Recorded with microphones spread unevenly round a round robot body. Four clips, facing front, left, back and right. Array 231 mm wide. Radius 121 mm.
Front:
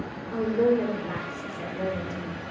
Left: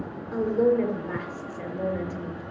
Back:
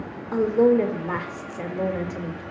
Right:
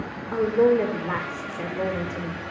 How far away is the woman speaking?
About 1.4 m.